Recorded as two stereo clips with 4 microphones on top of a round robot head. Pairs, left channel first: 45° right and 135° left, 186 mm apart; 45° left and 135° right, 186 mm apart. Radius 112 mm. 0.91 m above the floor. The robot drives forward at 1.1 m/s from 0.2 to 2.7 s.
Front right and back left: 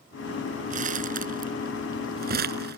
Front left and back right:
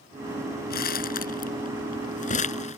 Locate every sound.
0.7 s crumpling: 85° left; by 2.8 s 95° left